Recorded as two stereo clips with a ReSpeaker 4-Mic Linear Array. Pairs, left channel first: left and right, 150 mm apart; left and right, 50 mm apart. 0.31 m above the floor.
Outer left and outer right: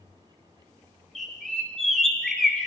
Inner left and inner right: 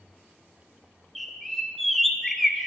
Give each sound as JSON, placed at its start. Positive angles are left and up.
{"t": 1.1, "sound": "a bird", "side_deg": 5, "distance_m": 0.8}